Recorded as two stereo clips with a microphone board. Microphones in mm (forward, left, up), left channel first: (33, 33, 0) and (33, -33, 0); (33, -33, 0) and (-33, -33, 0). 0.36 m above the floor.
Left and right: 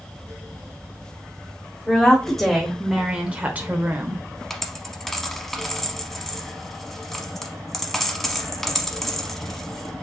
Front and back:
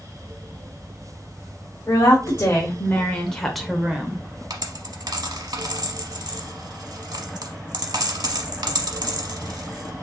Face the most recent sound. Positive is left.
turn(degrees=175)